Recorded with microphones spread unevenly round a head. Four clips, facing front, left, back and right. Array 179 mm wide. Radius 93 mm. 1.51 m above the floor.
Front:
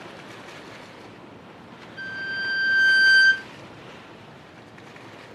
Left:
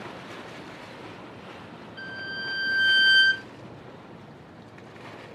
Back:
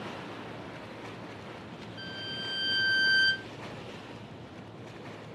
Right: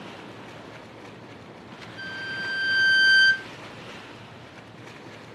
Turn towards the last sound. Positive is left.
turn(degrees=90)